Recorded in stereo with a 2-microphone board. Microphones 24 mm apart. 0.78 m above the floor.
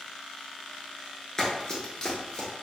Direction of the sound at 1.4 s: 20° left (ahead or behind).